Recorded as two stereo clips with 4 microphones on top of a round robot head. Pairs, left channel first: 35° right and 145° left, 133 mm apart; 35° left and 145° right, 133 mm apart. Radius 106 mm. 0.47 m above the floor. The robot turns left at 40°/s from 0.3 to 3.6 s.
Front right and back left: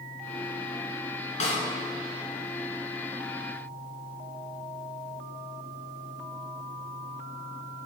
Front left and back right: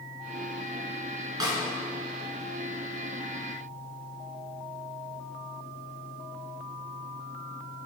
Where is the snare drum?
80° right, 2 m; by 1.6 s 85° right, 2 m.